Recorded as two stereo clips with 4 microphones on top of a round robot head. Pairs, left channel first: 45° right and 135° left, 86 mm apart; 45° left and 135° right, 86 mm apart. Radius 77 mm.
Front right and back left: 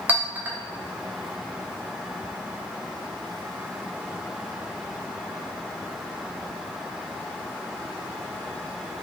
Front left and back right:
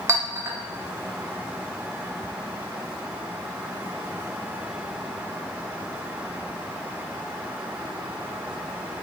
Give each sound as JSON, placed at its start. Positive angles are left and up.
{"t": 0.1, "sound": "a clink", "azimuth_deg": -170, "distance_m": 0.9}